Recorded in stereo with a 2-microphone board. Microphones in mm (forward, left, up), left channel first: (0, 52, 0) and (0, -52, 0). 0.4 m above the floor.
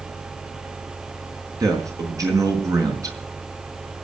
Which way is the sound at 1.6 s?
35° right (ahead or behind).